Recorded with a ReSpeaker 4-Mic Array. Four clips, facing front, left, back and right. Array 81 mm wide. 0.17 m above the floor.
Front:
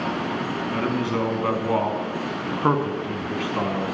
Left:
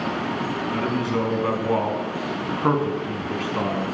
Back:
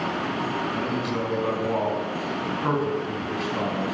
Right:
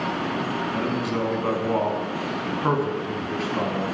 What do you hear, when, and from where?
0.7 s a man speaking: 20° left, 1.4 m